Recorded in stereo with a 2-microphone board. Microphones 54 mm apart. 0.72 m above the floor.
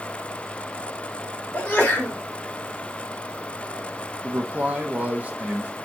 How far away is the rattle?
I don't hear a rattle.